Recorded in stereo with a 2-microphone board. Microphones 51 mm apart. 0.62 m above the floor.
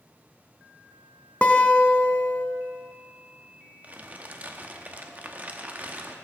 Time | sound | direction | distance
1.4 | a guitar | 25° left (ahead or behind) | 0.8 m
3.8 | crumpling | 30° right (ahead or behind) | 0.8 m